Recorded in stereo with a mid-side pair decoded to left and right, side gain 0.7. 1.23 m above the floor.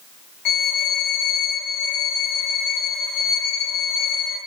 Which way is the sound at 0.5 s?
60° left.